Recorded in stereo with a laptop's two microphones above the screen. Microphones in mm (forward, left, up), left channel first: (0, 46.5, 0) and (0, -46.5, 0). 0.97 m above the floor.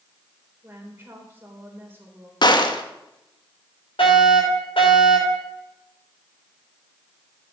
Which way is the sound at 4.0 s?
70° left (ahead or behind).